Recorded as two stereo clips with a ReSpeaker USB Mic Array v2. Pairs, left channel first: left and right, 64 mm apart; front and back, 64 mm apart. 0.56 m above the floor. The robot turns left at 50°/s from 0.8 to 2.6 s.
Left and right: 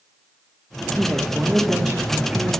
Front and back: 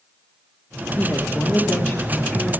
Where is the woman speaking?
10° left, 1.3 m; by 2.6 s 70° right, 1.3 m.